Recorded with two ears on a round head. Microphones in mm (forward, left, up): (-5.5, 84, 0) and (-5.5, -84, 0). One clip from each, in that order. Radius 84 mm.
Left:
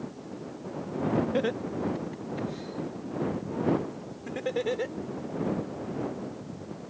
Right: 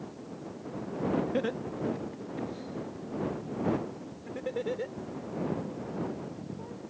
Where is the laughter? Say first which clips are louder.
Left 3 dB; 5° left (ahead or behind); by 5.0 s 40° left (ahead or behind).